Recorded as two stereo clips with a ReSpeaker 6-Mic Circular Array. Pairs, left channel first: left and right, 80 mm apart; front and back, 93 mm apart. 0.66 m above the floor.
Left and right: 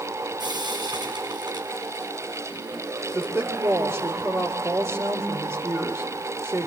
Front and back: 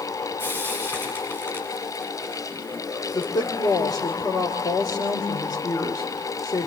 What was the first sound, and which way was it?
Frying, 65° right.